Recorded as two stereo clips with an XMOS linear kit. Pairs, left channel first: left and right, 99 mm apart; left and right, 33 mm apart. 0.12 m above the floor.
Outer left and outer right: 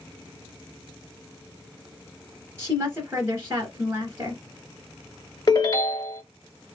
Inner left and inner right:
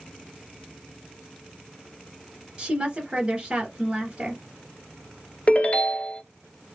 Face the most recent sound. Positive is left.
turn(degrees=45)  # may be behind; listen again after turning